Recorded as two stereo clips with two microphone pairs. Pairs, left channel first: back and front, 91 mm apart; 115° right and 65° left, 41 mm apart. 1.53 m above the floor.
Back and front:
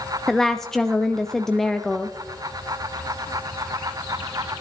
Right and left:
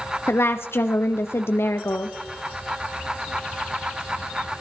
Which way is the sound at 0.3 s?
95° right.